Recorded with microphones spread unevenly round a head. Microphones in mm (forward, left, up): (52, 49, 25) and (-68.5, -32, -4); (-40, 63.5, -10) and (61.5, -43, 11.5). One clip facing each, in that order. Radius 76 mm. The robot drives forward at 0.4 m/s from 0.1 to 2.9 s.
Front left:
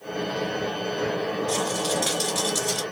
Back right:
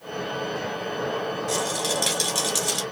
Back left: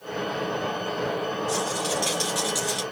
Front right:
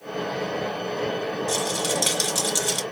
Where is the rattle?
70° right, 2 m; by 2.8 s 85° right, 1.9 m.